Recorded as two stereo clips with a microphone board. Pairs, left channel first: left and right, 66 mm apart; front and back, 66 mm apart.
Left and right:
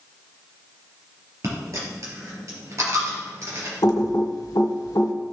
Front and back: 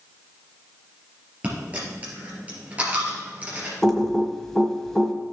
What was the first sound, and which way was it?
A dropped coin, 115° right.